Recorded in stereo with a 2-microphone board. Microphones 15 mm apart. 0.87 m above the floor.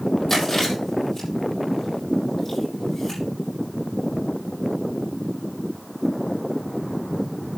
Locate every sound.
0.3 s chewing: 20° left (ahead or behind), 7.5 m